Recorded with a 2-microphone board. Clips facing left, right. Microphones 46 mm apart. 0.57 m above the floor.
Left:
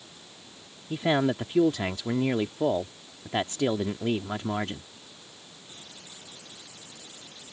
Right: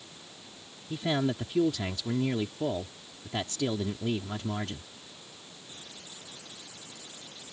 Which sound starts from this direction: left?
A man speaking, at 0.9 s.